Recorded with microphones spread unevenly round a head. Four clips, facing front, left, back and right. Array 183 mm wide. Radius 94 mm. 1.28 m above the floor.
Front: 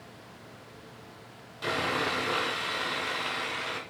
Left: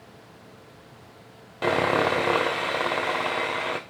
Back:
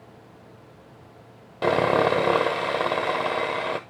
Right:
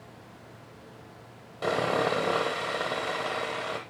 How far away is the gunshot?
I don't hear a gunshot.